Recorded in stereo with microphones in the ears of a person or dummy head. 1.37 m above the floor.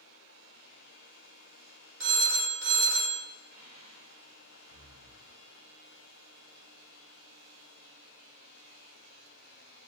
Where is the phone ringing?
60° right (ahead or behind), 0.5 m.